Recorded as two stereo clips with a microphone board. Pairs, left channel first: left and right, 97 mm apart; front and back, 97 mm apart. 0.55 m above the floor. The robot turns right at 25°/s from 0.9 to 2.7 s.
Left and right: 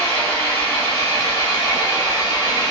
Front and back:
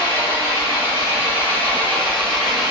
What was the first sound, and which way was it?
An engine running, 45° left.